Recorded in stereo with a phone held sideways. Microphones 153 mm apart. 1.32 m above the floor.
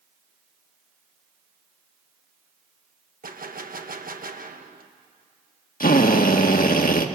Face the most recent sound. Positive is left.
turn(degrees=70)  # may be behind; listen again after turning